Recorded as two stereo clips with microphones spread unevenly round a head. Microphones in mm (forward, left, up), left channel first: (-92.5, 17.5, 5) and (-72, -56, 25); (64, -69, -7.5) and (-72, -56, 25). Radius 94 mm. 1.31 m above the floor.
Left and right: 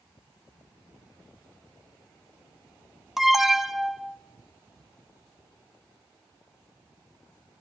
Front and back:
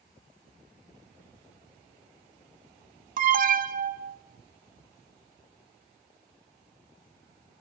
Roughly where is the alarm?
Behind.